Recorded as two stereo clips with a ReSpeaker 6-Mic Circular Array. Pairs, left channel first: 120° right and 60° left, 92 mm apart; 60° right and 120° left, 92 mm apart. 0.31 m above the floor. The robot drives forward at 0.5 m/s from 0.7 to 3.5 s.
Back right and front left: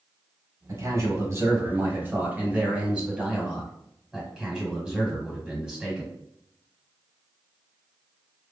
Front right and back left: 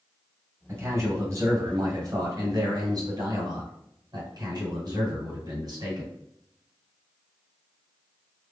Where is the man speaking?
80° left, 1.5 m; by 6.1 s 140° left, 1.9 m.